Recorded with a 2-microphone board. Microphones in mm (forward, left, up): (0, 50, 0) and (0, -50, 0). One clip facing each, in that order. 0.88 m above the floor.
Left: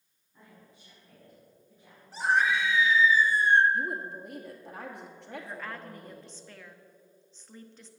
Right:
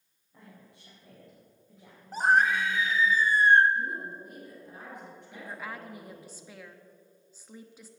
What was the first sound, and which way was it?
A woman speaking, 75° right (ahead or behind).